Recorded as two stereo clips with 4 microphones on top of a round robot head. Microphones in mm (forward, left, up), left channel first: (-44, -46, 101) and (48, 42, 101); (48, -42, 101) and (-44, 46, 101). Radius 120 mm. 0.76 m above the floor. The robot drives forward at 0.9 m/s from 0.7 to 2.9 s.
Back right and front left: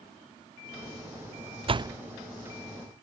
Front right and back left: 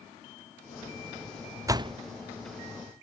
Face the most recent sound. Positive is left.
turn(degrees=155)